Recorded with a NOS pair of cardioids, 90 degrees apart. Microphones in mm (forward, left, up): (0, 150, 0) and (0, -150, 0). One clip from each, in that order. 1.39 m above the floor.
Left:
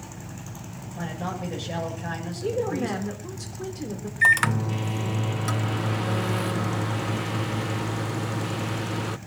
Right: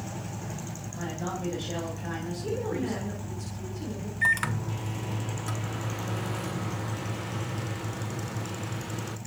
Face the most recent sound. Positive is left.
turn(degrees=35)